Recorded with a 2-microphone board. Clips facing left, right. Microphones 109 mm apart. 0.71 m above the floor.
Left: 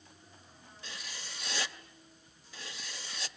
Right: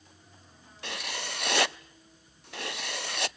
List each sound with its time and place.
0.8 s writing: 65° right (ahead or behind), 0.5 m